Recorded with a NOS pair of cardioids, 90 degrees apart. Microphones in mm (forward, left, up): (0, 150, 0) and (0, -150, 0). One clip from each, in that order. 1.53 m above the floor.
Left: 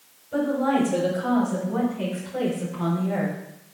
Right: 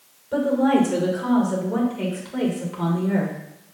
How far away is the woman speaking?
About 6 m.